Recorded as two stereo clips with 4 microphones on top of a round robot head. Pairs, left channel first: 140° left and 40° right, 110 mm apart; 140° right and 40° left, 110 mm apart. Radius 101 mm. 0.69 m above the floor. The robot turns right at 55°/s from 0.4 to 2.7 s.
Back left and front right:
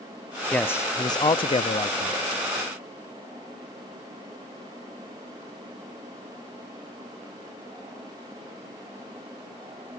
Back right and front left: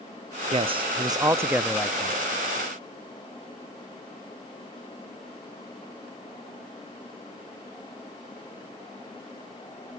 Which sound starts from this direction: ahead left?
A man speaking, at 0.5 s.